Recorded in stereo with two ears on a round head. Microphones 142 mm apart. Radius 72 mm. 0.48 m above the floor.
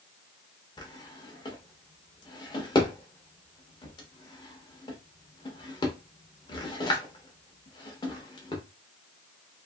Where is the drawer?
30° left (ahead or behind), 0.8 m.